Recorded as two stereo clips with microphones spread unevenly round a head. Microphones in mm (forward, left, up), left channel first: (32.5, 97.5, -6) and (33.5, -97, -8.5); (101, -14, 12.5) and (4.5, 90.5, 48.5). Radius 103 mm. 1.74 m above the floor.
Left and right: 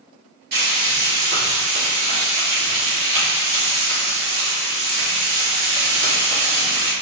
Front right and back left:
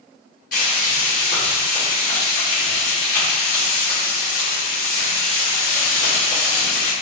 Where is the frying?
95° right, 1.6 m.